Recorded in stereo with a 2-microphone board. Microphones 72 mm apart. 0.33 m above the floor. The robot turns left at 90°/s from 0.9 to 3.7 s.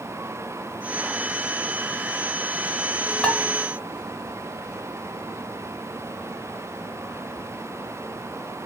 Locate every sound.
3.2 s dishes clattering: 15° left (ahead or behind), 0.7 m; by 3.4 s 25° left (ahead or behind), 0.7 m